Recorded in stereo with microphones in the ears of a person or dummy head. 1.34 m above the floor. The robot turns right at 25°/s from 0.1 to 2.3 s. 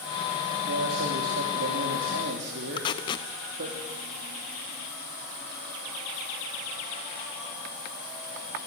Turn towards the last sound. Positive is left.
turn(degrees=20)  # may be behind; listen again after turning